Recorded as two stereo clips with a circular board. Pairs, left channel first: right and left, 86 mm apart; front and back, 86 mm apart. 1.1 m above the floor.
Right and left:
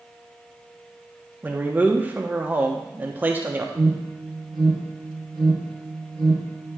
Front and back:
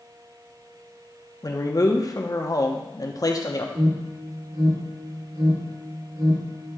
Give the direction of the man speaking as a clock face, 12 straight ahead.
11 o'clock.